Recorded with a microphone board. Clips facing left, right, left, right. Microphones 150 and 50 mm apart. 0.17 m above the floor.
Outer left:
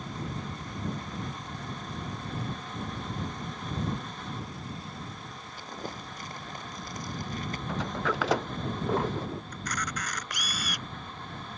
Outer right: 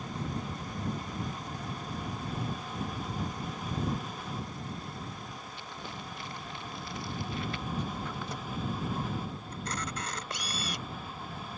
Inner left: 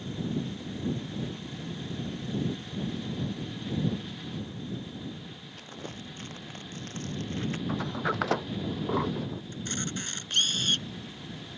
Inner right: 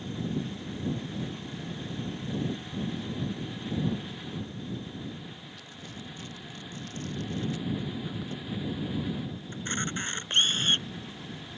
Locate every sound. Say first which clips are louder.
5.6 s crumpling: outer left 7 dB, inner left 2 dB; 40° left (ahead or behind)
7.7 s a sliding door: outer left 5 dB, inner left 4 dB; 85° left
9.5 s a camera shutter: outer left 1 dB, inner right 6 dB; 25° right (ahead or behind)